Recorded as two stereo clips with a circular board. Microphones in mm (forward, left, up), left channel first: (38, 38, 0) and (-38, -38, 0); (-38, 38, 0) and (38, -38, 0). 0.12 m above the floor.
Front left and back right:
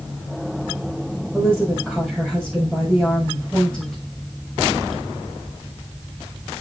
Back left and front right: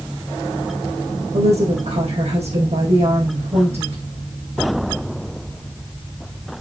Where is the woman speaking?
40° right, 6 m.